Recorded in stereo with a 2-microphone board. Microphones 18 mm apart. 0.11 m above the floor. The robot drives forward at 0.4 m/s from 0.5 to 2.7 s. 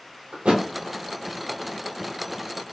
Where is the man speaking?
I don't hear a man speaking.